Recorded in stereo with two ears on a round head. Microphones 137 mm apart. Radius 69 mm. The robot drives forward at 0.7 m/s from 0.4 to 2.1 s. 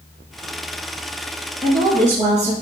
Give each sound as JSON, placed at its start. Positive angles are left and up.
{"t": 1.6, "sound": "a woman speaking", "side_deg": -60, "distance_m": 4.0}